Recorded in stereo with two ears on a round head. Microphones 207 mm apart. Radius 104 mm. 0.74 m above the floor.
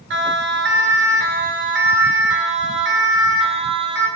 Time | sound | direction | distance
0.1 | a siren | 55° right (ahead or behind) | 7.5 m